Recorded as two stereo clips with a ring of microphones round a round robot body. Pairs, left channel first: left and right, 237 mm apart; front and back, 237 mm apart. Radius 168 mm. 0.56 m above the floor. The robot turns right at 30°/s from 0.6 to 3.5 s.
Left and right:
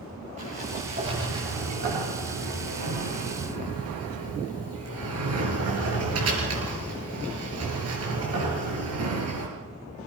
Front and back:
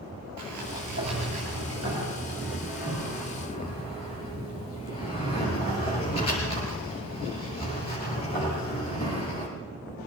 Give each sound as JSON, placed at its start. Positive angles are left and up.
{"t": 0.4, "sound": "a sliding door", "azimuth_deg": -160, "distance_m": 7.0}